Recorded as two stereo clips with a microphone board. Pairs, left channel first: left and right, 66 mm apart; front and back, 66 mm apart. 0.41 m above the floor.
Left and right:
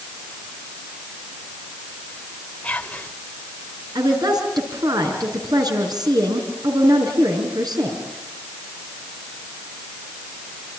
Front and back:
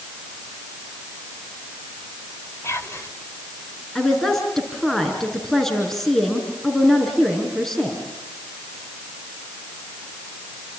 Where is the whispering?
25° left, 2 m.